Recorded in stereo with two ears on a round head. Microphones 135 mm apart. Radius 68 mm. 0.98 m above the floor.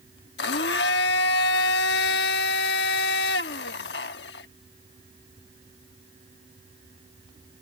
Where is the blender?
80° left.